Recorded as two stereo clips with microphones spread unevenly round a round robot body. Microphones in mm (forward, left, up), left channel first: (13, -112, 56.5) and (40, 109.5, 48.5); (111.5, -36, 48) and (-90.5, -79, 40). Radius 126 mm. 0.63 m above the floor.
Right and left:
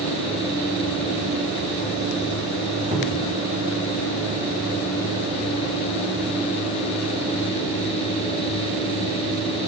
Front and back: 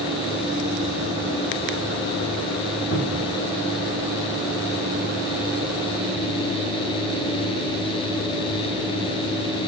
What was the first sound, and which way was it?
A cupboard door, 25° left.